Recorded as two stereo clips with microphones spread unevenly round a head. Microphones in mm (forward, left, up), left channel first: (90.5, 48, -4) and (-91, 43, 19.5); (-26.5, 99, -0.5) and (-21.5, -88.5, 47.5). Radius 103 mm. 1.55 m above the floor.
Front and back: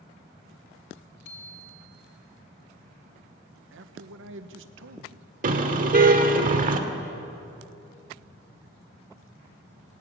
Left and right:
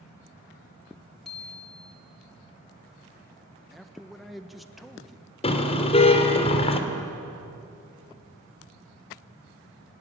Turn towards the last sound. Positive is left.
turn(degrees=155)